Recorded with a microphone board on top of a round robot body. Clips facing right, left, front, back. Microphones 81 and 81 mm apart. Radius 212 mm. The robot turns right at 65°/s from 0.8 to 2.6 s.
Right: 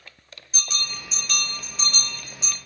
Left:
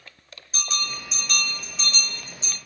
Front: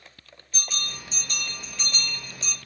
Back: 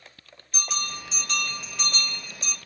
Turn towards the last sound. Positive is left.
turn(degrees=-90)